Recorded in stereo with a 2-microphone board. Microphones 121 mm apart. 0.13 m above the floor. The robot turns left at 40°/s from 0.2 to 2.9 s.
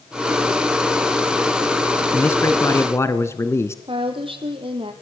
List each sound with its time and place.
2.1 s a man speaking: 15° left (ahead or behind), 1.3 m; by 3.8 s 20° left (ahead or behind), 1.3 m
3.9 s a woman speaking: 45° right (ahead or behind), 4 m